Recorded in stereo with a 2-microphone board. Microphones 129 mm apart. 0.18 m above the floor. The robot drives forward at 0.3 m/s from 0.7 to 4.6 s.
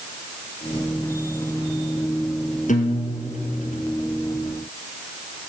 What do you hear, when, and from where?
2.7 s a guitar: 70° left (ahead or behind), 2.0 m; by 3.8 s 65° left (ahead or behind), 2 m